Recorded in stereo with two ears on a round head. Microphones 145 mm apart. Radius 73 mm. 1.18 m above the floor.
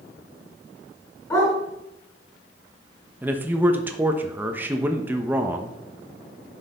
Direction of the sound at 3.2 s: 10° right (ahead or behind).